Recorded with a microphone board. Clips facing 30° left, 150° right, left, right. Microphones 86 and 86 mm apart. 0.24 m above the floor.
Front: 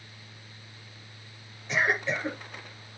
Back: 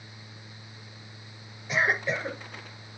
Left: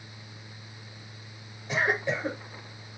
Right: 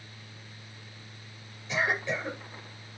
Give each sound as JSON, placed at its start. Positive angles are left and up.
{"t": 1.7, "sound": "a cough", "azimuth_deg": 130, "distance_m": 5.0}